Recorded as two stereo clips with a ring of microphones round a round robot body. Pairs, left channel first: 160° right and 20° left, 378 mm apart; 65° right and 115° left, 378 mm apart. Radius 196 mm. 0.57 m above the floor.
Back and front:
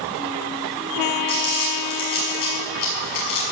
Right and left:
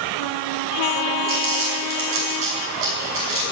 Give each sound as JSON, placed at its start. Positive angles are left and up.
{"t": 1.3, "sound": "crumpling", "azimuth_deg": 170, "distance_m": 6.5}